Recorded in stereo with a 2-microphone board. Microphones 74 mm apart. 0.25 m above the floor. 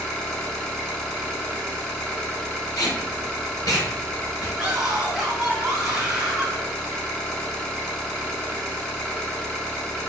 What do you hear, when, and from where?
0.0 s an engine running: 10° left (ahead or behind), 1.1 m
2.8 s tape being pulled: 55° left (ahead or behind), 1.8 m
4.6 s a scream: 10° right (ahead or behind), 1.5 m